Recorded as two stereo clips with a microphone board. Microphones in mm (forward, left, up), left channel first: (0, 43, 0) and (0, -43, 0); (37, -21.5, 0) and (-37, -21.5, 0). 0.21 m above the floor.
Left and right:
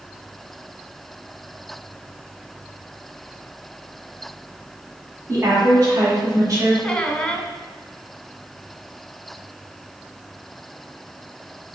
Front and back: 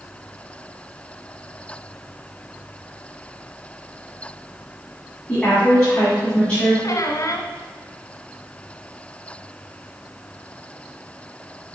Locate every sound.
5.3 s a woman speaking: 70° right, 1.9 m
6.8 s a squeak: 10° left, 0.8 m